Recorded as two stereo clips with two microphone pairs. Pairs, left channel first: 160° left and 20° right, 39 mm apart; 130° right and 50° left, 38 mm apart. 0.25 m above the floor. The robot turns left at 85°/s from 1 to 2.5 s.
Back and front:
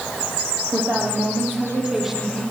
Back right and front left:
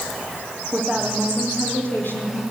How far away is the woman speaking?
About 9.5 m.